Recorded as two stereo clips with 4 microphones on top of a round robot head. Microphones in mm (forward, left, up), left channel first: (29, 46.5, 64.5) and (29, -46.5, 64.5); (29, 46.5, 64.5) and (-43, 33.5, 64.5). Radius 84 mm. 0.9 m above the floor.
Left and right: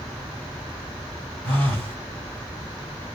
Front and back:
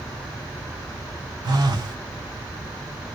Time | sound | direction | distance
1.4 | a phone buzzing | 170° left | 1.5 m